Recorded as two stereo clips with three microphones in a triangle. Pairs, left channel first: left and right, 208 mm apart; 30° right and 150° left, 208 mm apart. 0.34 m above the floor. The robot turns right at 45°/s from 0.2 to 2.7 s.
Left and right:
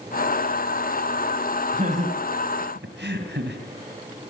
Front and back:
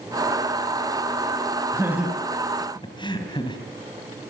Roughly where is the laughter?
Behind right.